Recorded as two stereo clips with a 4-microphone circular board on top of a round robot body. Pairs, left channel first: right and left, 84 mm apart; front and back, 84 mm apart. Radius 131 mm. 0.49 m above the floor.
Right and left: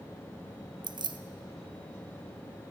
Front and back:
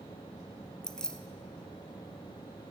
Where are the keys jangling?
80° left, 0.6 m.